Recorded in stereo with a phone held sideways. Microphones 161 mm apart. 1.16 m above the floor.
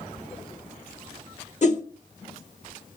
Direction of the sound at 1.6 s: 50° left (ahead or behind).